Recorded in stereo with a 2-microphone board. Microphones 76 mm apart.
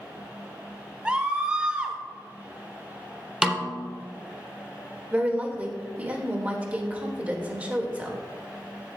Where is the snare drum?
10° right (ahead or behind), 1.0 m.